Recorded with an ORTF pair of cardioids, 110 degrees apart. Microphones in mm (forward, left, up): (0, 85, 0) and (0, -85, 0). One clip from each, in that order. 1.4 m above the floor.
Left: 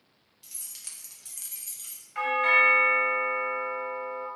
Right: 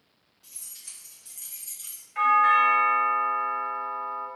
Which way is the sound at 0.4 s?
60° left.